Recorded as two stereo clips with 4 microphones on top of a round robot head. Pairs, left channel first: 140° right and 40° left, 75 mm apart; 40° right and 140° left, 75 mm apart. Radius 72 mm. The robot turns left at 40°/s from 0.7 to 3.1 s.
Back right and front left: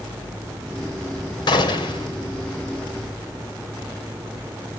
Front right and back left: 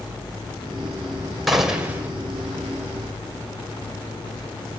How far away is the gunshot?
About 3 m.